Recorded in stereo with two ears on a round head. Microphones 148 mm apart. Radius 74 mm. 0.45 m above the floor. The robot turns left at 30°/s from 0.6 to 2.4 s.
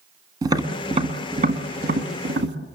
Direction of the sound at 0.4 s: 25° right (ahead or behind).